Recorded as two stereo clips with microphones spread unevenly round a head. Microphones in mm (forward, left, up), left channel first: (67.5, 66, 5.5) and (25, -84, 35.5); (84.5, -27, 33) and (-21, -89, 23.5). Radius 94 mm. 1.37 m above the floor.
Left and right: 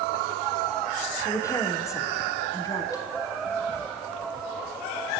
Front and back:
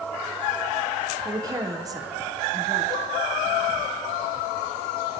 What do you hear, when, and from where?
1.2 s a woman speaking: 145° left, 1.0 m